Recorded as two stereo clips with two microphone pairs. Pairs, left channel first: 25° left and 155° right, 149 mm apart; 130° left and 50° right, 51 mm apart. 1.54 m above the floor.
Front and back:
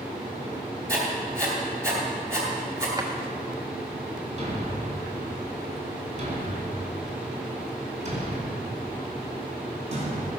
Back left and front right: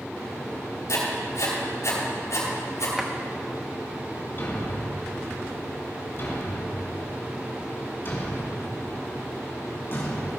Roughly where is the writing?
Behind left.